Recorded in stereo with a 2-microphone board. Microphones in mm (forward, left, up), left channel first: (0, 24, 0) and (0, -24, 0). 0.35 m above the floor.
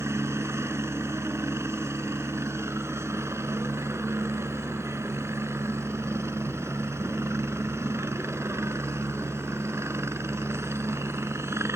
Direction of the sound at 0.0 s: 70° right (ahead or behind).